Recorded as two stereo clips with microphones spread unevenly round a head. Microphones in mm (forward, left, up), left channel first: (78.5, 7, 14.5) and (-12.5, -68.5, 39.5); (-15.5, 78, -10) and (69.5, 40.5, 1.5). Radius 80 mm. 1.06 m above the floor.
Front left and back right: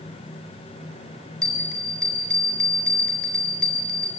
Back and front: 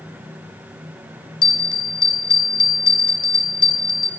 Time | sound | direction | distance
1.4 | a bell | 125° left | 4 m